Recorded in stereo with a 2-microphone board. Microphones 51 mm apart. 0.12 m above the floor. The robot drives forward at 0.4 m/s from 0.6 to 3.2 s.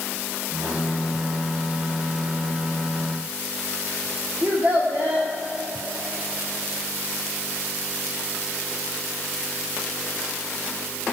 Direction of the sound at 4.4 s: 30° right (ahead or behind).